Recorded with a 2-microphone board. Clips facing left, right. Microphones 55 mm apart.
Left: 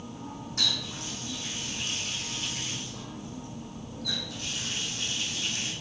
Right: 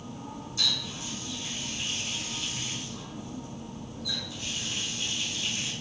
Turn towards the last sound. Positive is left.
turn(degrees=60)  # may be behind; listen again after turning